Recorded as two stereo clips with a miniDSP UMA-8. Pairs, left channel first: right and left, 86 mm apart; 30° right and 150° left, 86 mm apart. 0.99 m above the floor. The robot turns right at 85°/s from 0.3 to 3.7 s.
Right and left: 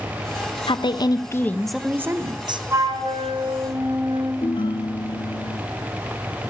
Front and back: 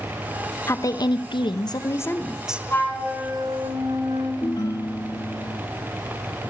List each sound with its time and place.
0.7 s a woman speaking: 90° right, 0.6 m; by 2.6 s 75° left, 0.6 m
2.7 s a flute: 30° left, 4 m; by 4.3 s 115° left, 4 m
4.4 s a ringtone: 70° right, 0.8 m